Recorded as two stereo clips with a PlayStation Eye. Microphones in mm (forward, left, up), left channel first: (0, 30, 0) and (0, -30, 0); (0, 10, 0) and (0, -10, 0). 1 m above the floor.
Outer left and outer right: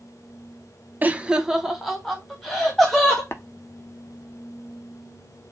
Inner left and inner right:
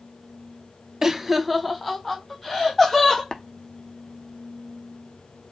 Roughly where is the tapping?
Left.